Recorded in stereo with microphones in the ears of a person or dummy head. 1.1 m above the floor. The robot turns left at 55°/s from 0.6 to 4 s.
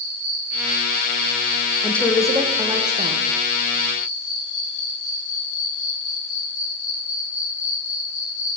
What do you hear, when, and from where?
0.0 s an insect: 80° right, 2.5 m; by 8.6 s 90° left, 2.5 m
1.8 s a woman speaking: 20° left, 0.5 m; by 3.2 s 60° right, 0.5 m